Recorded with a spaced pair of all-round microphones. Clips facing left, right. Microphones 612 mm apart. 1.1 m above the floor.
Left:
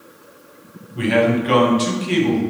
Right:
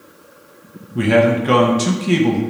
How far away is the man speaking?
About 0.6 m.